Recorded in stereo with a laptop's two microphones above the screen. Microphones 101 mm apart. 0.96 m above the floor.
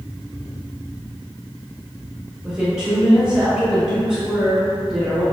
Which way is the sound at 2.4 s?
5° right (ahead or behind).